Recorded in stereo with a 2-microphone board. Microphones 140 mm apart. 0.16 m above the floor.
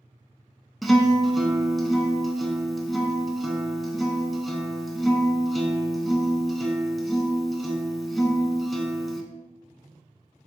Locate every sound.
0.8 s a guitar: centre (ahead or behind), 0.5 m